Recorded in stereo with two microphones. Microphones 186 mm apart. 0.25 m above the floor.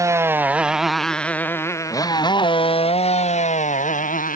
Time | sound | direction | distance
0.0 | a motorcycle | 15° right (ahead or behind) | ?